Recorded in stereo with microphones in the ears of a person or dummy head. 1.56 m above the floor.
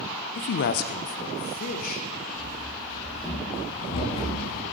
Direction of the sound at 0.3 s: 50° left (ahead or behind).